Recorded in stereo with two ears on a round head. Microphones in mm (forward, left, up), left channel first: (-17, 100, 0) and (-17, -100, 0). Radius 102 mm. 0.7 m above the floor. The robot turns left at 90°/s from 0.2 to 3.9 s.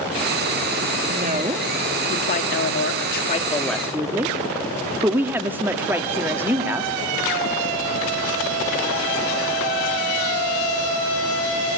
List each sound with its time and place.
1.1 s a woman speaking: 120° right, 1.4 m; by 6.9 s 10° right, 1.4 m